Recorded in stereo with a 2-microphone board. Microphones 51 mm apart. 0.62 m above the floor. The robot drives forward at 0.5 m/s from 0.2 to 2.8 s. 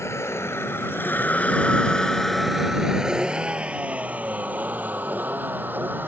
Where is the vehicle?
65° left (ahead or behind); by 6.1 s 40° right (ahead or behind).